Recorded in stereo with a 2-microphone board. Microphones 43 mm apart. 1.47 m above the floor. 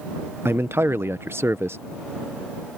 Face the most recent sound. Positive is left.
turn(degrees=-65)  # may be behind; listen again after turning